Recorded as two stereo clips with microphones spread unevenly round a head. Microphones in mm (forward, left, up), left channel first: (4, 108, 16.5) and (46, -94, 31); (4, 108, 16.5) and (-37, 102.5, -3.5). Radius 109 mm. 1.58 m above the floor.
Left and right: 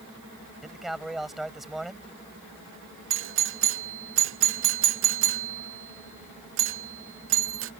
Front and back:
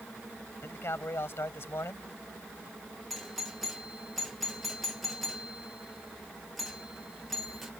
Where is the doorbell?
95° right.